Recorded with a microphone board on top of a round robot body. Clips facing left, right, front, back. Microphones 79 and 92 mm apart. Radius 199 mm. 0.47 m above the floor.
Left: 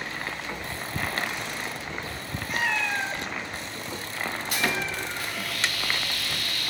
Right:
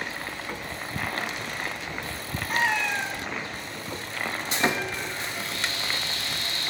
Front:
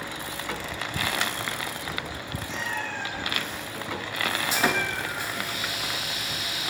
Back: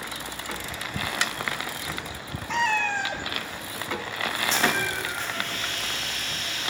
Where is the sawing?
70° right, 1.3 m.